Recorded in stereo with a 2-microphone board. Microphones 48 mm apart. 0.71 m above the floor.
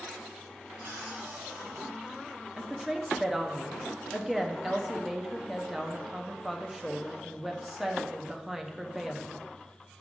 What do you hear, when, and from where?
0.8 s a cupboard door: 65° right (ahead or behind), 1.6 m
2.6 s a woman speaking: 10° right (ahead or behind), 0.6 m